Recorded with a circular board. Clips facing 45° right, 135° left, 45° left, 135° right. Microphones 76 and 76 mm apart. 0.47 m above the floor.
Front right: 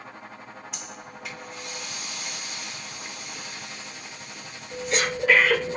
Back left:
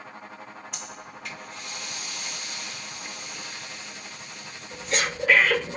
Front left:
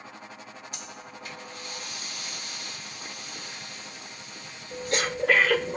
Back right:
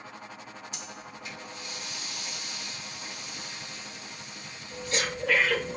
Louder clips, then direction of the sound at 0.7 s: Even, even; 45° left.